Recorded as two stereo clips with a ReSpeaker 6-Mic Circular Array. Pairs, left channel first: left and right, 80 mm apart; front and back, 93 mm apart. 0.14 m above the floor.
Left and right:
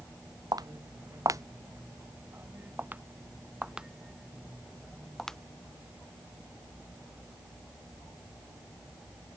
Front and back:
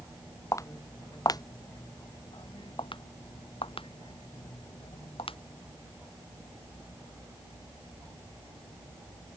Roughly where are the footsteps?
Ahead right.